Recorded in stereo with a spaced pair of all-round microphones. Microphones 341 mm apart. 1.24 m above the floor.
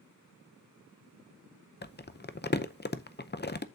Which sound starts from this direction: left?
Crumpling, at 1.8 s.